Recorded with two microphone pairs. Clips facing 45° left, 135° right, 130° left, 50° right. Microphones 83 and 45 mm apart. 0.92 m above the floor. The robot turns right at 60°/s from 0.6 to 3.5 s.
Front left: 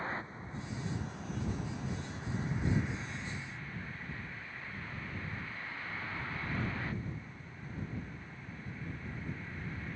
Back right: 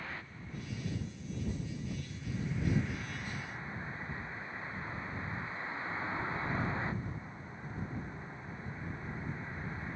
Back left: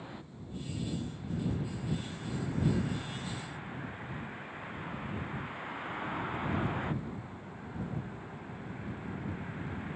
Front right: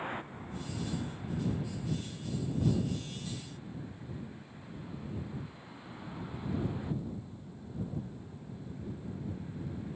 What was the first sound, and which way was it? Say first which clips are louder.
A vehicle: front left 5 dB, front right 7 dB; 10° right.